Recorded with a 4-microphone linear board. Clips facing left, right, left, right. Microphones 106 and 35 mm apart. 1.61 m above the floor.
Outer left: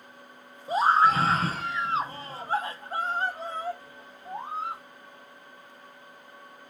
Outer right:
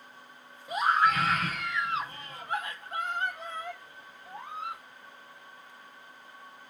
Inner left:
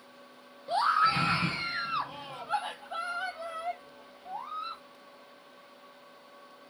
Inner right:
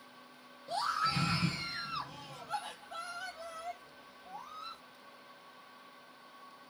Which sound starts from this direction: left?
A scream, at 0.7 s.